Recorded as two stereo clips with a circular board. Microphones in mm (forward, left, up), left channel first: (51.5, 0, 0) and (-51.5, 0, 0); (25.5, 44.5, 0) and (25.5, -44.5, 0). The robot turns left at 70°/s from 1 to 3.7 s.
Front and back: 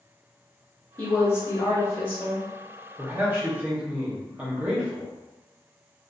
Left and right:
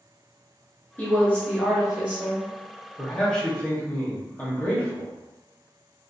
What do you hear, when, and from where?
1.0 s a woman speaking: 45° left, 0.8 m; by 2.5 s 60° right, 0.8 m
3.0 s a man speaking: 175° left, 0.8 m; by 5.1 s 125° left, 0.8 m